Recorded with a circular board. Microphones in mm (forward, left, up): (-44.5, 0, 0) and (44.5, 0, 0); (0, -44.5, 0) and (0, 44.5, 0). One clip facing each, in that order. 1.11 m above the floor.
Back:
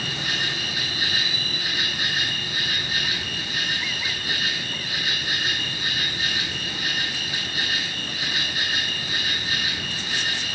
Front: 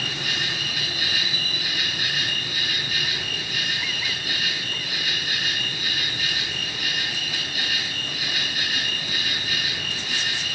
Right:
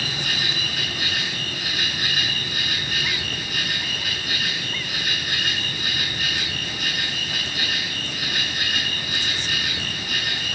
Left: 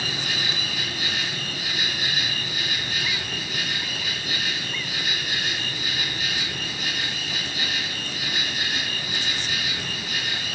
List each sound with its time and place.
0.0 s an insect: 125° right, 7.5 m